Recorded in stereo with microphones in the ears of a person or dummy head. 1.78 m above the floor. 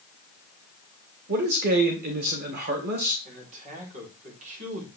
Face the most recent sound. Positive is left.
turn(degrees=-45)  # may be behind; listen again after turning